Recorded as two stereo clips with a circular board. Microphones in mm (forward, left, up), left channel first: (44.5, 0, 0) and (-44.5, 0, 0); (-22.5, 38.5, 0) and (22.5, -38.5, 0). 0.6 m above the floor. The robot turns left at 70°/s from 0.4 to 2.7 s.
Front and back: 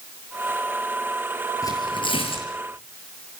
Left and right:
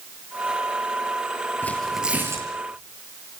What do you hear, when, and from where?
1.6 s tearing paper: 50° left, 7 m; by 2.5 s 10° right, 7 m